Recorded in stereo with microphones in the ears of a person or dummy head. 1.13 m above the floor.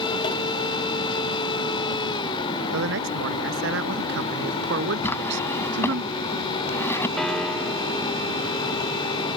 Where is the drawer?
15° left (ahead or behind).